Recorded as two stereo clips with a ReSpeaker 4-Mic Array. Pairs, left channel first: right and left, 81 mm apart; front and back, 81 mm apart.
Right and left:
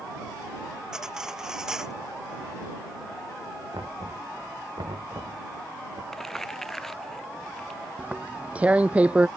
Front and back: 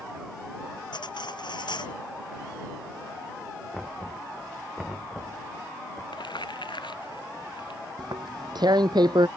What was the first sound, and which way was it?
Cutlery clinking, 10° left.